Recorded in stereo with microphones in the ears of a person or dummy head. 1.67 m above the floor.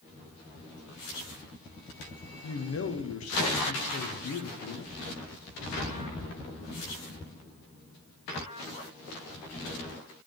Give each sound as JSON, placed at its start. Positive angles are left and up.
{"t": 2.4, "sound": "a man speaking", "side_deg": 70, "distance_m": 0.8}